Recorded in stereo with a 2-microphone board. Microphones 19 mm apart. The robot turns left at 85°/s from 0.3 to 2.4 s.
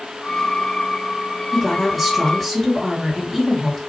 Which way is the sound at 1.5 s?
15° right (ahead or behind).